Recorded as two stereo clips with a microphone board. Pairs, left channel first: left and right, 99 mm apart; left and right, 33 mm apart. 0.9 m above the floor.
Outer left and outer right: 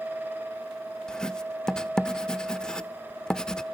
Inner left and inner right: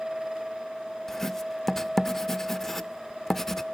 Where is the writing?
5° left (ahead or behind), 0.7 m.